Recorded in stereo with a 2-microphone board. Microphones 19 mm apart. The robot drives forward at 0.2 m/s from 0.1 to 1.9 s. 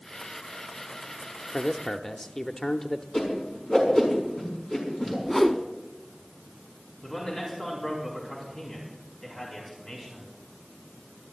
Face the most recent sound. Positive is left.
turn(degrees=45)  # may be behind; listen again after turning